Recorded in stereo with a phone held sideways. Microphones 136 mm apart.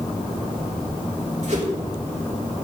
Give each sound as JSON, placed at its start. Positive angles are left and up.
{"t": 1.4, "sound": "a whoosh", "side_deg": -60, "distance_m": 3.0}